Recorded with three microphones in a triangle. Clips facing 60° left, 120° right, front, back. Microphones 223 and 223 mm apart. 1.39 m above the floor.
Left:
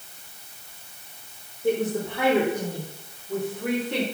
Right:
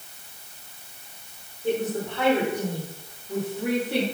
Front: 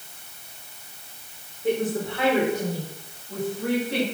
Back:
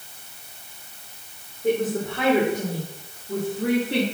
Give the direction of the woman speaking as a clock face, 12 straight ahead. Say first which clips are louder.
Left 2 dB, back 2 dB; 8 o'clock.